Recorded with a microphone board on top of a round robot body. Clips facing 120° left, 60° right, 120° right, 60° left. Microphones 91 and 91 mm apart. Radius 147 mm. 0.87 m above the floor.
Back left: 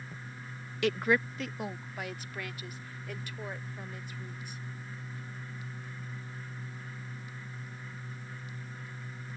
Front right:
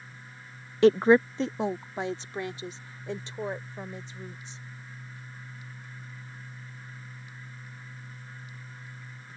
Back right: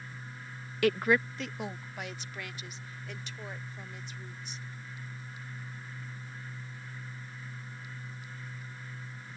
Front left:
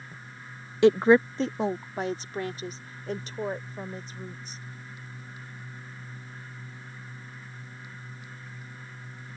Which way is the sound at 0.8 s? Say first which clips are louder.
Front right 10 dB, front left 8 dB; 5° right.